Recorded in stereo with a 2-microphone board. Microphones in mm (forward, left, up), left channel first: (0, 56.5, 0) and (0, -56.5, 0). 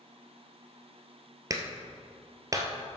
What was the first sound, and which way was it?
A clap, 30° right (ahead or behind).